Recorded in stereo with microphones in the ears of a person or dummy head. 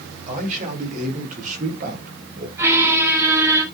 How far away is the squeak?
About 2 m.